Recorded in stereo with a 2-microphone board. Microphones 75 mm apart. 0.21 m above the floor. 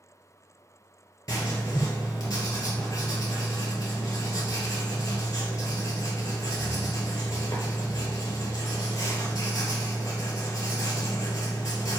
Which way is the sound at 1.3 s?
45° left (ahead or behind).